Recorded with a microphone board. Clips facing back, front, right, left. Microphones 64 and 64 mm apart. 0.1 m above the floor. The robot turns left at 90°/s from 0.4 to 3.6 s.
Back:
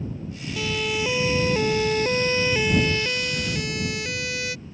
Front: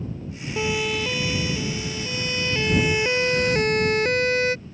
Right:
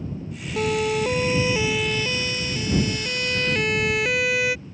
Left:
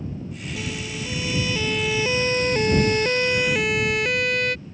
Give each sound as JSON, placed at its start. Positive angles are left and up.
{"t": 0.6, "sound": "a siren", "azimuth_deg": -60}